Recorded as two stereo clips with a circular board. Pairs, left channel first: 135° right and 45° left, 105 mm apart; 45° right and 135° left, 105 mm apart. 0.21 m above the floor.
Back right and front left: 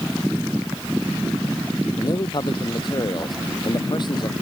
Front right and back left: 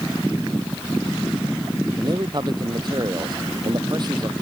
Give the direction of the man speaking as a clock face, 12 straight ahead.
6 o'clock.